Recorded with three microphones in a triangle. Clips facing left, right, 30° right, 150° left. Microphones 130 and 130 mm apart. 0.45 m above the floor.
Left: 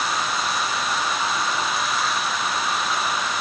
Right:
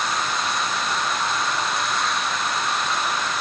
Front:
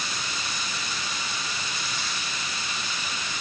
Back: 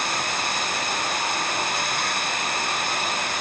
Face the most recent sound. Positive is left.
turn(degrees=180)